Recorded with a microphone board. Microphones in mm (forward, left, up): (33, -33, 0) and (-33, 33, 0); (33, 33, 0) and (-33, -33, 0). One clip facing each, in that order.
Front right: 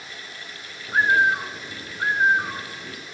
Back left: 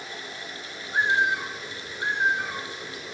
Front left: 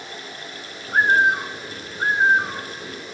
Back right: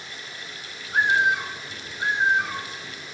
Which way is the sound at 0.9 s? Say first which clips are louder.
Front right 4 dB, front left 4 dB; straight ahead.